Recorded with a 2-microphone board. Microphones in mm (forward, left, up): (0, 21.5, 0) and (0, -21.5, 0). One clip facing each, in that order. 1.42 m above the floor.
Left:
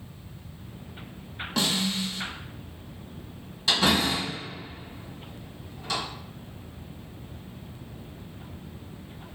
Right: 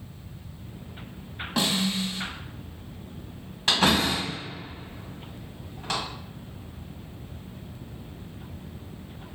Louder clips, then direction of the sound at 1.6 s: Right 1 dB; 15° right (ahead or behind).